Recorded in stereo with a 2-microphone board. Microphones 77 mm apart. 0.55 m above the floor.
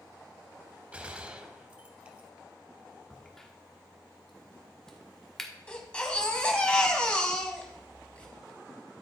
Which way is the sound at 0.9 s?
15° right (ahead or behind).